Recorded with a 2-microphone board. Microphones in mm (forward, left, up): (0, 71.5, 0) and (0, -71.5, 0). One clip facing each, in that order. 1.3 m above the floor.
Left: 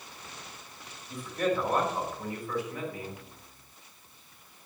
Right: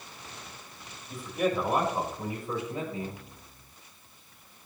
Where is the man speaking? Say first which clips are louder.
Right 1 dB; 5° right (ahead or behind), 5.5 m; by 3.2 s 30° right (ahead or behind), 5.5 m.